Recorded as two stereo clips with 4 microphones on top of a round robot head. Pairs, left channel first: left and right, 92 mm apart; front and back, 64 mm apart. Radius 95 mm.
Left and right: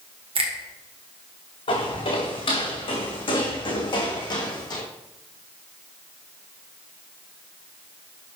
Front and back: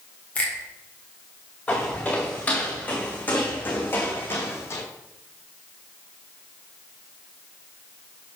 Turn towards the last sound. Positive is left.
turn(degrees=45)